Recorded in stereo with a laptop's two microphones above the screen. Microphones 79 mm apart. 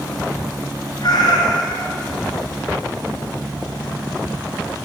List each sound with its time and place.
1.0 s a cat meowing: 55° left (ahead or behind), 3 m